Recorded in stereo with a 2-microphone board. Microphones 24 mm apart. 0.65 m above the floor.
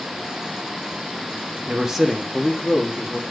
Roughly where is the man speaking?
Right.